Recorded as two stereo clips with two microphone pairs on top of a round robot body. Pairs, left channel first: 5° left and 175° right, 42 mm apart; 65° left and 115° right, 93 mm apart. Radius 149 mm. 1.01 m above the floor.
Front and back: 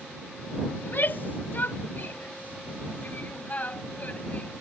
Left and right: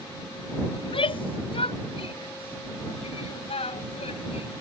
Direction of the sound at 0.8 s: 40° left.